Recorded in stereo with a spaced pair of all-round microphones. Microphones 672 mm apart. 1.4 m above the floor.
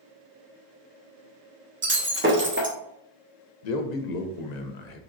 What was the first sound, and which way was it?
Breaking glass, 20° right (ahead or behind).